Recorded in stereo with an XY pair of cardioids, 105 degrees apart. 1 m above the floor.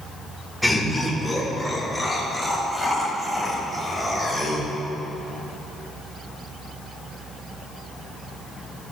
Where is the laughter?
Straight ahead, 3.5 m; by 4.7 s 20° right, 7 m.